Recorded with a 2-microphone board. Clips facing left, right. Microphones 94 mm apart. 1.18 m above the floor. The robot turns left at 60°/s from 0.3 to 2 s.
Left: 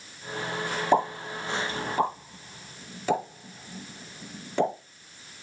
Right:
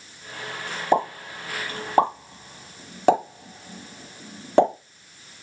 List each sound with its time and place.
0.9 s a pop: 10° right (ahead or behind), 2 m; by 4.7 s 65° right (ahead or behind), 2 m